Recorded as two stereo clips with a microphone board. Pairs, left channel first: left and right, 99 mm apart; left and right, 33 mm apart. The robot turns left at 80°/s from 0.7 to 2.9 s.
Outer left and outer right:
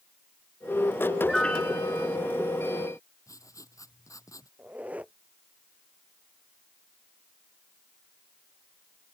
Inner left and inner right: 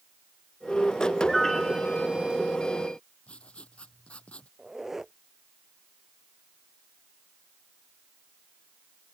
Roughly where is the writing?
Left.